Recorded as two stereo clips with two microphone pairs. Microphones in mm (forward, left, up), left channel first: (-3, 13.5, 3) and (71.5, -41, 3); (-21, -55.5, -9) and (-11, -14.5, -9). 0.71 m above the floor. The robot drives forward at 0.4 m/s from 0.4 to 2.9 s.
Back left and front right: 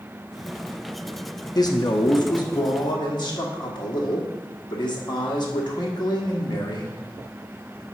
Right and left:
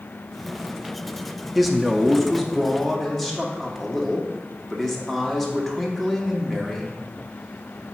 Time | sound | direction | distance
1.6 | a man speaking | 170° left | 0.7 m